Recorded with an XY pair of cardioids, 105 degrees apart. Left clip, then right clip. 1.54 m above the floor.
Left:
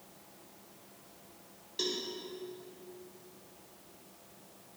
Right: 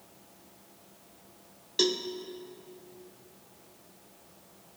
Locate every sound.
1.8 s a cowbell: 60° right, 0.7 m